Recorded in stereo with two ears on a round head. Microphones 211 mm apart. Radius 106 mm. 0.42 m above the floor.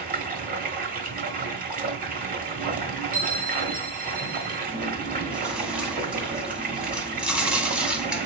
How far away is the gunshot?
I don't hear a gunshot.